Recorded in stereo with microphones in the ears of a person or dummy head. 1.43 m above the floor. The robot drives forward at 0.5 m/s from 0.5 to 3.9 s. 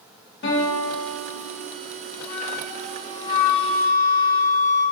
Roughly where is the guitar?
Left.